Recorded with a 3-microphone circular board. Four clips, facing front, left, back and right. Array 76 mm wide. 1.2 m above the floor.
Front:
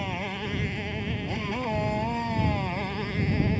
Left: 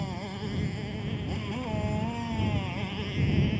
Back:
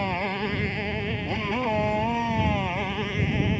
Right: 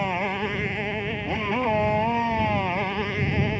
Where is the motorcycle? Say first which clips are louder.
Right 10 dB, back 5 dB; 110° right; by 3.6 s 95° right.